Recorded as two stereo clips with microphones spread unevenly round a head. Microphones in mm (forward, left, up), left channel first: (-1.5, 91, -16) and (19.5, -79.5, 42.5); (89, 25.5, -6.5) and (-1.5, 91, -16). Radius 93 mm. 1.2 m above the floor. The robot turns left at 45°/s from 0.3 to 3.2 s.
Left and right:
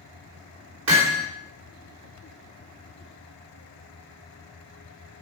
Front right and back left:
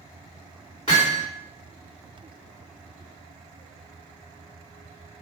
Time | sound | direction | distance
0.9 | hammering | 105° right | 3.5 m